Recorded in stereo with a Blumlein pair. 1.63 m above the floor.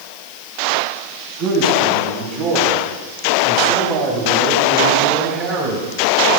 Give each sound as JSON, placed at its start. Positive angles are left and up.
{"t": 1.4, "sound": "a man speaking", "azimuth_deg": -45, "distance_m": 9.5}